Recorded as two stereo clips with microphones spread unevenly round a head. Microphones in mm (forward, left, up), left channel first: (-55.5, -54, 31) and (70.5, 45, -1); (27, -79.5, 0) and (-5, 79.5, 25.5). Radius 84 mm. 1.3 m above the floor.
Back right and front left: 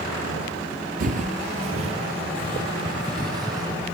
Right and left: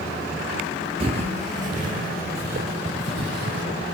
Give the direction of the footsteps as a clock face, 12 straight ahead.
9 o'clock.